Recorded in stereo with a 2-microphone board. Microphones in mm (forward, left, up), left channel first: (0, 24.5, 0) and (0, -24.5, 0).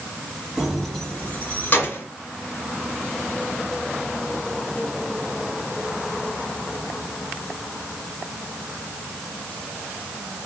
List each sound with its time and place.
0.6 s keys jangling: 15° right (ahead or behind), 1.0 m; by 2.0 s 45° left (ahead or behind), 1.5 m